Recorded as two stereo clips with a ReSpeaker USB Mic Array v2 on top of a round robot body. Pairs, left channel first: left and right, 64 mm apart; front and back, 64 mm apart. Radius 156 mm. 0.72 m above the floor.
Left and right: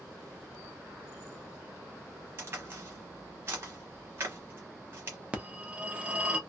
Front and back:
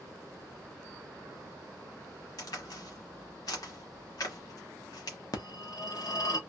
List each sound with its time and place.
2.4 s a crack: 35° right, 1.1 m
5.3 s a phone ringing: 20° right, 1.0 m